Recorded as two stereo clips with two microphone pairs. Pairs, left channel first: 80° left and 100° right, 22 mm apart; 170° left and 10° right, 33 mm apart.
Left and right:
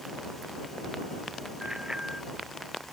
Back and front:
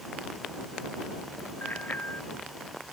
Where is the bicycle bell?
165° right.